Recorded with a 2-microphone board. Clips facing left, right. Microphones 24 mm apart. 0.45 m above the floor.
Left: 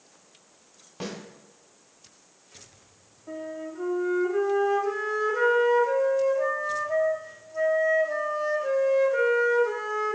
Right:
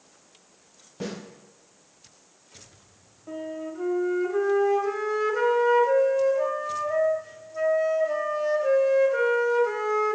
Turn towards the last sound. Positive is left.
turn(degrees=-10)  # may be behind; listen again after turning